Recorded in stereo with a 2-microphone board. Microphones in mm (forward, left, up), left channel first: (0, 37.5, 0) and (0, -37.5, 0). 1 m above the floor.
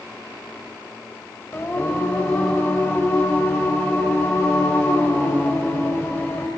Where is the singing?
30° left (ahead or behind), 2.5 m.